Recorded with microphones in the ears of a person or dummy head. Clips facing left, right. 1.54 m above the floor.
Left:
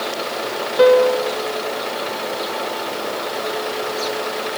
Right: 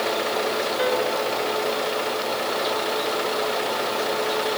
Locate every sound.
0.8 s a piano: 70° left (ahead or behind)